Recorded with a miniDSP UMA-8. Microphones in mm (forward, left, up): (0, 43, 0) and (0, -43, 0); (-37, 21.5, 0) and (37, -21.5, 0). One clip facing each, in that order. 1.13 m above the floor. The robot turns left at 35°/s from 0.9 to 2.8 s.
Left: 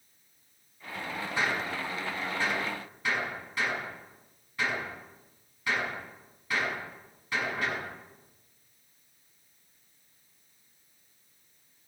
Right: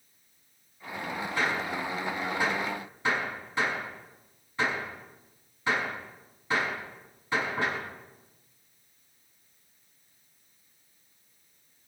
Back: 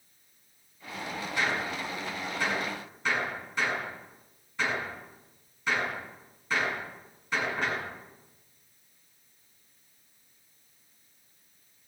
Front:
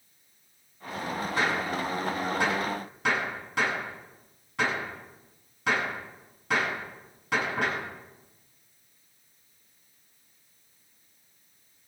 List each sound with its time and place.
1.4 s a gunshot: 20° left, 8 m; by 7.9 s 30° right, 8 m